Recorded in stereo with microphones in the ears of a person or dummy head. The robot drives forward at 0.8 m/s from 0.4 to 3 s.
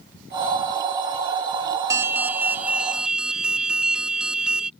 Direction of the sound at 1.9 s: 20° right (ahead or behind).